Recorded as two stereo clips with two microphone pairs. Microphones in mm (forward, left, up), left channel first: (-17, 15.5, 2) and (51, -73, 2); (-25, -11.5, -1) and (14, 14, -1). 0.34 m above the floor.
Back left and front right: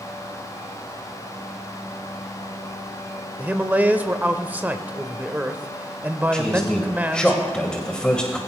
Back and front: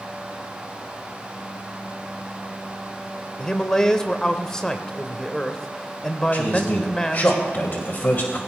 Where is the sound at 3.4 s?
95° right, 0.9 m.